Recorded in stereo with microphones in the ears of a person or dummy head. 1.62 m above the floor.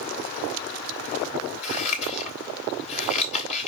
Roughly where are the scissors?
Left.